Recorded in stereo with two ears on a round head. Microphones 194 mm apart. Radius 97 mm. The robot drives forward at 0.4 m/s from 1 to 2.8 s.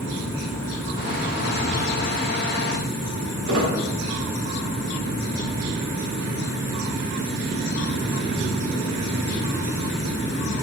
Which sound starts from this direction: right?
A squeak, at 3.5 s.